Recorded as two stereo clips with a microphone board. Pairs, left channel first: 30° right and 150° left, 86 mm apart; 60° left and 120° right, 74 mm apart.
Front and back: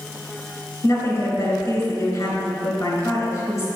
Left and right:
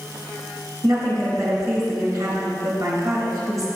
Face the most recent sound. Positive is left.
turn(degrees=-80)